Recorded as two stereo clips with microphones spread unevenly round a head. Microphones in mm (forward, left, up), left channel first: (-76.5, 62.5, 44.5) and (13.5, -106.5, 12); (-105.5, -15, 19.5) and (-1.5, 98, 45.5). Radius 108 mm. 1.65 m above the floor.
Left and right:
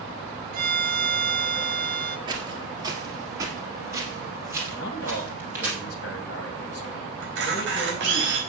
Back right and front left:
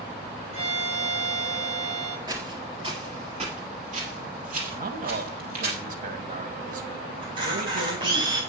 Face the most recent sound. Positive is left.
turn(degrees=-20)